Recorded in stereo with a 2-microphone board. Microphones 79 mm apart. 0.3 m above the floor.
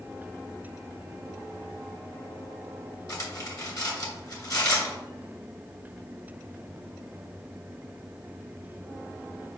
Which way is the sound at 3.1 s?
50° left (ahead or behind).